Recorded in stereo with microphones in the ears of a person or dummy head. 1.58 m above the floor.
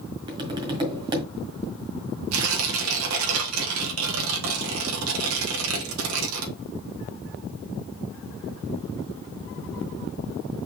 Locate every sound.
0.3 s tapping: 30° right (ahead or behind), 1.8 m
2.3 s tearing paper: 85° right, 2.5 m